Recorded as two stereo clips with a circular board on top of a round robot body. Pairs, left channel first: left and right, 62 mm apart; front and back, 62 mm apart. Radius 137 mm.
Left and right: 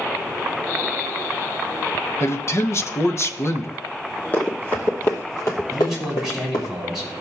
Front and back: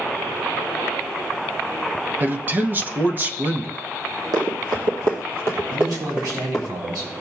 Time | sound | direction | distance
2.2 | a man speaking | 130° left | 1.0 m
4.3 | running footsteps | 155° left | 1.5 m
5.7 | a man speaking | 170° right | 5 m